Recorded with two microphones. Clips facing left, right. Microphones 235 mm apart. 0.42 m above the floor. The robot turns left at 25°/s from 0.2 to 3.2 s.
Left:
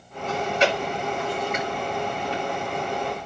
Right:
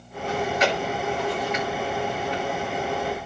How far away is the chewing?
About 7.5 m.